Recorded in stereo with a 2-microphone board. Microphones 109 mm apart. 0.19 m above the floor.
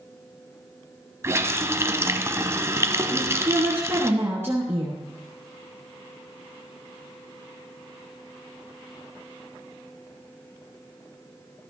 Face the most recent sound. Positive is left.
turn(degrees=-20)  # may be behind; listen again after turning